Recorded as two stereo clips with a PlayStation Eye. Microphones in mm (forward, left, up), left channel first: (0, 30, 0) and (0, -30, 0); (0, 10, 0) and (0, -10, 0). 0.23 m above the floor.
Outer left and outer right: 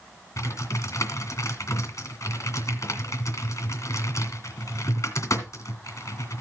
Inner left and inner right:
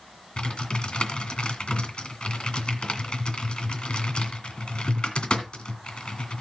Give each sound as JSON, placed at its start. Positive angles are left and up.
{"t": 0.4, "sound": "typing on a keyboard", "side_deg": 55, "distance_m": 2.0}